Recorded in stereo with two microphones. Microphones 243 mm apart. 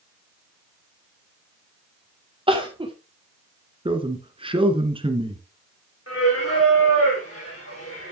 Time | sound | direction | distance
2.5 | crying | 20° right (ahead or behind) | 2 m
3.9 | a man speaking | 20° right (ahead or behind) | 1.5 m
6.1 | singing | 65° left (ahead or behind) | 4.5 m